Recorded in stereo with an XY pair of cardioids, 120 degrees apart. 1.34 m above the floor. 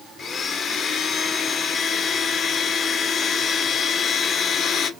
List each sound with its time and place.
0.2 s a blender: 45° left, 0.8 m